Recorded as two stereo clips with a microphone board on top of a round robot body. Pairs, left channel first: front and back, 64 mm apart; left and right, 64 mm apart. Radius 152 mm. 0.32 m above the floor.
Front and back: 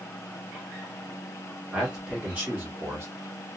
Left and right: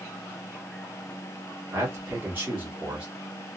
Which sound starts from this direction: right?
A man speaking, at 1.7 s.